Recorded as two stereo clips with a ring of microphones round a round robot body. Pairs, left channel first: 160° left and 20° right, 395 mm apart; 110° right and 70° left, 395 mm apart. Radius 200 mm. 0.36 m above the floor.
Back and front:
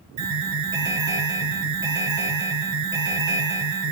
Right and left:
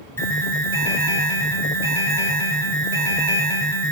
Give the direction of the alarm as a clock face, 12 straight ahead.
1 o'clock.